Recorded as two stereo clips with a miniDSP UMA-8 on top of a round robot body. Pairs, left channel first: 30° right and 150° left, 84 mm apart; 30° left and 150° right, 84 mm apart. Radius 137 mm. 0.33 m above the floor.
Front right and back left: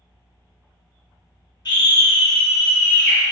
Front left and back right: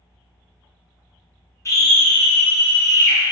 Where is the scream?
15° right, 1.3 m; by 3.2 s 30° left, 2 m.